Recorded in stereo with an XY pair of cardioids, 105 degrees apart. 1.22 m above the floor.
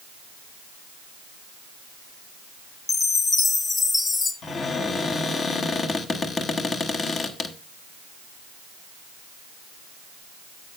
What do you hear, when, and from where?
2.9 s a chime: 35° left, 1.5 m
4.4 s a cupboard door: 45° left, 1.5 m